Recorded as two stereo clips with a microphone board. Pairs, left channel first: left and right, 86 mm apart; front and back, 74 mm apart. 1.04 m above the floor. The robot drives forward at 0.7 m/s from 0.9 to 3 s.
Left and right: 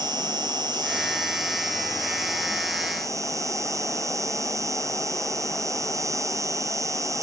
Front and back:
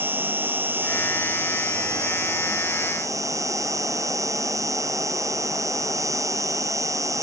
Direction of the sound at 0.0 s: 120° right.